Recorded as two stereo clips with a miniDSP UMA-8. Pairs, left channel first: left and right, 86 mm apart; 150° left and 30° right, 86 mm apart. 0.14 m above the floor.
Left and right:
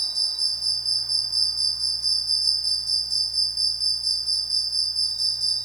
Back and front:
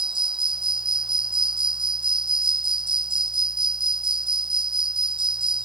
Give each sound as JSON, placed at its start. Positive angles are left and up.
{"t": 0.0, "sound": "an insect", "azimuth_deg": -50}